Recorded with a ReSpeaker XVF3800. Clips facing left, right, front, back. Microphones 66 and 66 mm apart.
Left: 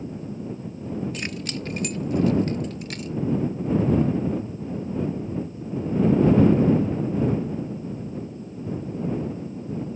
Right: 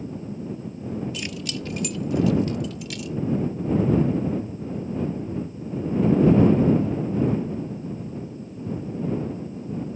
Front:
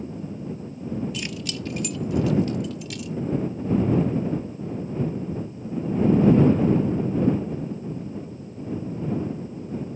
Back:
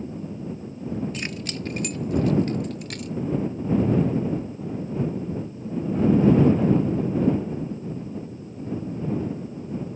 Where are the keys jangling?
135° left; by 3.2 s 140° left.